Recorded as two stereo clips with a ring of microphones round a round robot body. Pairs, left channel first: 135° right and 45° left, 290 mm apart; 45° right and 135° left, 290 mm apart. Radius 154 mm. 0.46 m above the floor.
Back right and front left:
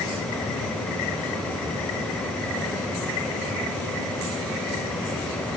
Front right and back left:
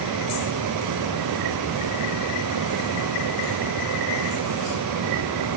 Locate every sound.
Only background noise.